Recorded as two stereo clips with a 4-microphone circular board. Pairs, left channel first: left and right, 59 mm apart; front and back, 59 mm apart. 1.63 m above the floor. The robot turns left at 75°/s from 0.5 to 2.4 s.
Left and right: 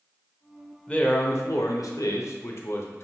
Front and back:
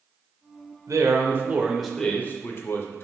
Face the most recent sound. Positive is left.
turn(degrees=50)